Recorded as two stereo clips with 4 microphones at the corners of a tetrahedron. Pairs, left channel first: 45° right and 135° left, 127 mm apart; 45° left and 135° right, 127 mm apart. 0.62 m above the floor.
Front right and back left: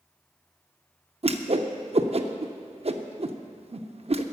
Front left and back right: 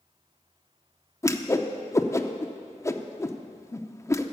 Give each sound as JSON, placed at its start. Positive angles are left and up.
{"t": 1.2, "sound": "a whoosh", "azimuth_deg": 110, "distance_m": 0.6}